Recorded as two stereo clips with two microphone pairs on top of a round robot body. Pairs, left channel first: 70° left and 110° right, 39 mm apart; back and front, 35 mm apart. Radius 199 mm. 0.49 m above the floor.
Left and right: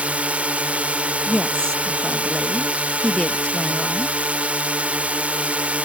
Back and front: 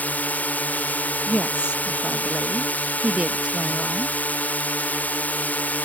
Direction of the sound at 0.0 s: 155° right.